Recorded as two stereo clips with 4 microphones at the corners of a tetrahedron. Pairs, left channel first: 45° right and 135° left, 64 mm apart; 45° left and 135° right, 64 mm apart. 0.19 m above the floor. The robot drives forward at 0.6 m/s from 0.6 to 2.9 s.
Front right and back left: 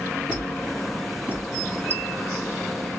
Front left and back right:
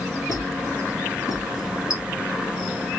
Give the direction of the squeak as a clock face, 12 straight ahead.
10 o'clock.